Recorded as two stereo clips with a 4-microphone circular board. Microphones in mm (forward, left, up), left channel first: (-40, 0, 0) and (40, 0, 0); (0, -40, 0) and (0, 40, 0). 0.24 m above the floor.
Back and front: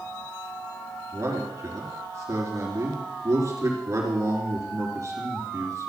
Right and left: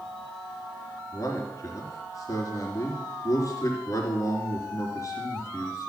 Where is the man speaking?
45° right, 3.5 m.